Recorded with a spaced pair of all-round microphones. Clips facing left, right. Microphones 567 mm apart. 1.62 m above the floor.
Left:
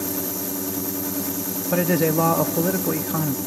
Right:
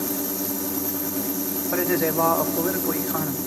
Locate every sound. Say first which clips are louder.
1.7 s a man speaking: left 3 dB; 55° left (ahead or behind), 0.8 m